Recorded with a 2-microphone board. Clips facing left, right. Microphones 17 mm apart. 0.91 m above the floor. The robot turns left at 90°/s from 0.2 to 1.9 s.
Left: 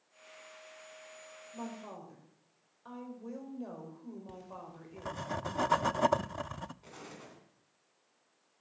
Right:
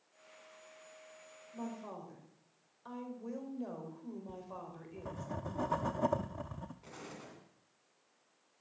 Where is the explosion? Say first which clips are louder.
Even; centre (ahead or behind), 3.5 m.